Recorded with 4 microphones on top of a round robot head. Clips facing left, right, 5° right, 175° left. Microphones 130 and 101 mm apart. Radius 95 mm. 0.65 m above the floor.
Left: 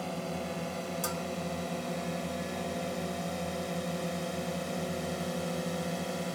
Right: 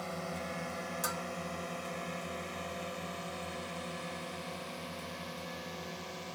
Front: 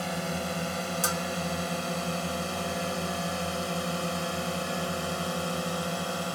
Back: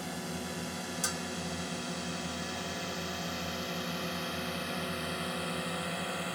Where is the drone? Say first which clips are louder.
Left 4 dB, front 7 dB; 15° left; by 6.4 s 55° left.